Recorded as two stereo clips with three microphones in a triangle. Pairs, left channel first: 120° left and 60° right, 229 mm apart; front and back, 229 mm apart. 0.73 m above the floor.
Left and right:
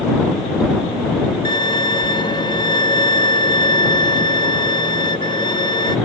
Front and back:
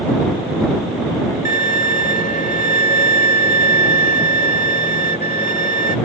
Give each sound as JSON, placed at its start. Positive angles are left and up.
{"t": 1.4, "sound": "a violin", "azimuth_deg": 50}